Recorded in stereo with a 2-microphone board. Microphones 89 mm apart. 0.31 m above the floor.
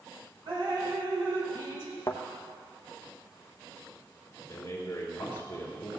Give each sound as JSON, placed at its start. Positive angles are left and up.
{"t": 0.5, "sound": "dripping", "side_deg": -60, "distance_m": 3.0}
{"t": 2.1, "sound": "a thud", "side_deg": 30, "distance_m": 1.1}
{"t": 4.5, "sound": "a man speaking", "side_deg": 30, "distance_m": 5.0}